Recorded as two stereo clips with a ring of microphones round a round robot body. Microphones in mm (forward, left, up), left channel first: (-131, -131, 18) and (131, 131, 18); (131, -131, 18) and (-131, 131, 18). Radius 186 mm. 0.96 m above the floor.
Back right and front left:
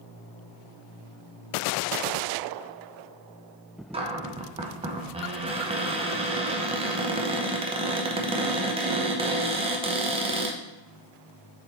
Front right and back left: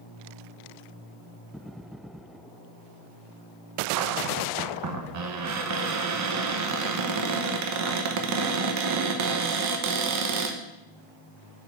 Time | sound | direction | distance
3.9 | a cupboard door | 115° left | 1.0 m